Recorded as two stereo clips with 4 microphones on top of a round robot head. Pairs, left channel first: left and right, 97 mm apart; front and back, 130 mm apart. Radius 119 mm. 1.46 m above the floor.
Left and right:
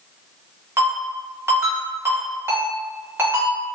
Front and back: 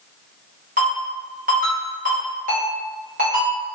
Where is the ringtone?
150° right, 1.0 m.